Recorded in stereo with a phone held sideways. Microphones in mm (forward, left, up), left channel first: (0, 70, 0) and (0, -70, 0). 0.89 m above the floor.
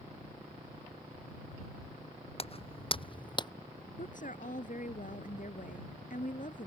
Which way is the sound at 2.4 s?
45° left (ahead or behind).